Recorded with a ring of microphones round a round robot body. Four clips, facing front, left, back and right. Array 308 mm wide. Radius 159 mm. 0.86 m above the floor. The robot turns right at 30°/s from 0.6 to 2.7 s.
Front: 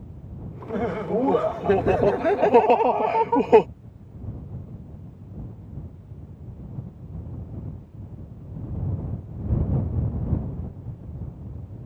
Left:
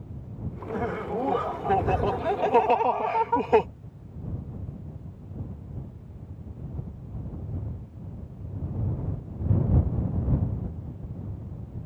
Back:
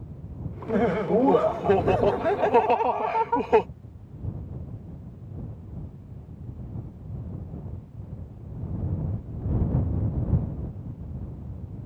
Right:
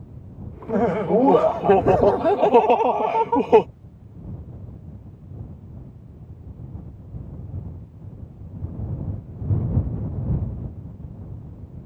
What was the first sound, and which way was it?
Laughter, 110° right.